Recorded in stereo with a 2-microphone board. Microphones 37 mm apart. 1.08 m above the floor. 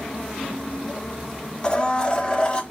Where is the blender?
30° left (ahead or behind), 1.3 m.